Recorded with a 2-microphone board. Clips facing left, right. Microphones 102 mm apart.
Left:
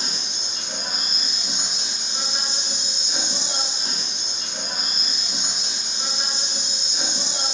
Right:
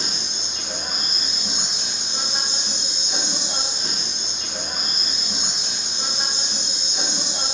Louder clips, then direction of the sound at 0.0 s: Right 2 dB; 75° right (ahead or behind).